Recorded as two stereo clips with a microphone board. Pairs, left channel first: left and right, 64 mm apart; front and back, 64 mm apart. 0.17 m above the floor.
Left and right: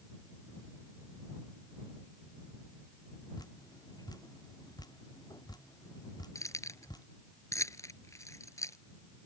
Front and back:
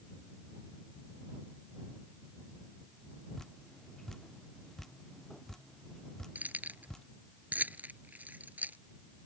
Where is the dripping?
85° left.